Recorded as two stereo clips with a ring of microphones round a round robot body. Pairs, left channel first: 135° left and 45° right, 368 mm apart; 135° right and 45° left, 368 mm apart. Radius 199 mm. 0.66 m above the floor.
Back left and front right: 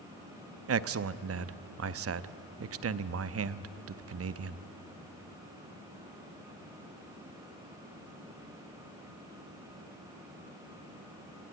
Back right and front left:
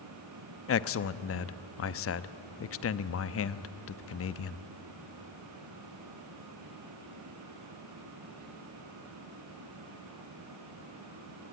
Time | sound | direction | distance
0.7 | a man speaking | 90° right | 0.7 m